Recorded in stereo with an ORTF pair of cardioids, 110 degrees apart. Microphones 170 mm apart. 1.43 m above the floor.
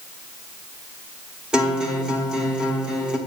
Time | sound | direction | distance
1.5 | a guitar | 5° right | 1.0 m